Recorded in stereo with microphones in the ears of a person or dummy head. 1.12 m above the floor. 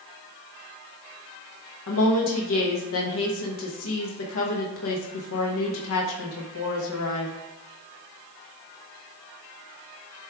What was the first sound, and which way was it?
A woman speaking, 70° left (ahead or behind).